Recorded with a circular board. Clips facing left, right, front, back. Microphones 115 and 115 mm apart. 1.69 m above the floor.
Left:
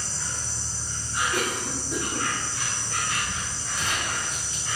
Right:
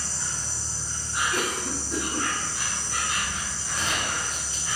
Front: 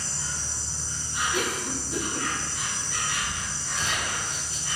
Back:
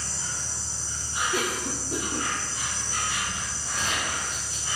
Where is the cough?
175° left, 0.6 m.